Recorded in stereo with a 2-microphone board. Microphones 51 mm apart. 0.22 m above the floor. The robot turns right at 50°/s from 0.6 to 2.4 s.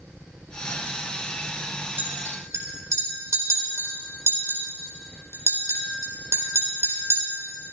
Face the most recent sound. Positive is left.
turn(degrees=-65)  # may be behind; listen again after turning